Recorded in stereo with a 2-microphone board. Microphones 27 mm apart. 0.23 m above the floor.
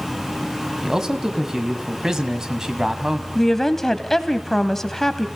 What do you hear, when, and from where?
0.8 s a man speaking: 20° right (ahead or behind), 1.7 m
3.4 s a woman speaking: 10° left (ahead or behind), 1.3 m